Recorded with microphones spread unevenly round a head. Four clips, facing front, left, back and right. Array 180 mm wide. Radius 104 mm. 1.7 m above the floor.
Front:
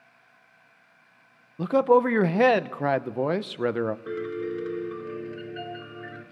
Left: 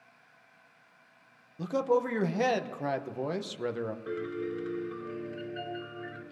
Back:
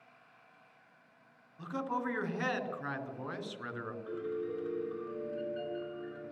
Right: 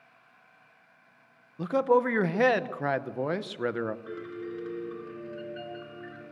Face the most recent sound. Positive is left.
turn(degrees=15)